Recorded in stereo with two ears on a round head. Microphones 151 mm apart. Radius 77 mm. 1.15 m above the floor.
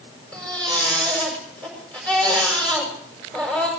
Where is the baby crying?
5° left (ahead or behind), 6 m.